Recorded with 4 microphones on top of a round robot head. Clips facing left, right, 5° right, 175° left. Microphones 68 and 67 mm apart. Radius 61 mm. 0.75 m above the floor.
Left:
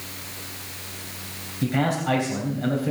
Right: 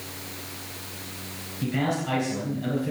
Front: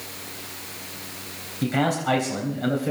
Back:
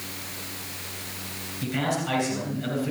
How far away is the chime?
No chime in this recording.